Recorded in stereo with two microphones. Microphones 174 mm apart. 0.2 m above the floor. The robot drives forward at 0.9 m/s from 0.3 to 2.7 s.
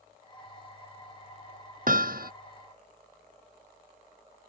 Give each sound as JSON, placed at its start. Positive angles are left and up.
{"t": 1.9, "sound": "hammering", "side_deg": -60}